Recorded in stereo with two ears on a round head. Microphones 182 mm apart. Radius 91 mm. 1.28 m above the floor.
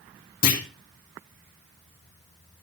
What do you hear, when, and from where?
0.4 s a clunk: 50° left (ahead or behind), 2 m